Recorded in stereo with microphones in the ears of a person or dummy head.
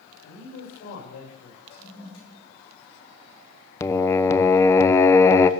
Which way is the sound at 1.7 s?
85° left.